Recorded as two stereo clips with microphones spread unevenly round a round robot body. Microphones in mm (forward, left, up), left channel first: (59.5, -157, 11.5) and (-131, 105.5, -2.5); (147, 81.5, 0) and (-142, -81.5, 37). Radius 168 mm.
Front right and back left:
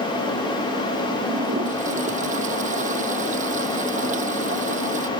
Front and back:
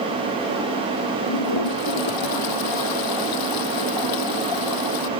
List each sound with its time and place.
1.3 s a toilet flushing: 55° left